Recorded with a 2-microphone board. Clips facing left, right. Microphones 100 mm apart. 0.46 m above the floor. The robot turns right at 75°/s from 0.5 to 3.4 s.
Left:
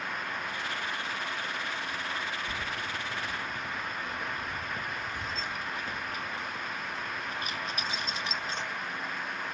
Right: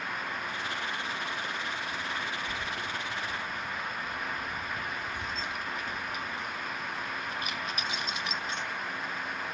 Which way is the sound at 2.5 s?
60° left (ahead or behind).